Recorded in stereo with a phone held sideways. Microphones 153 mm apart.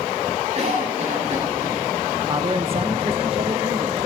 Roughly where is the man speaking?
Right.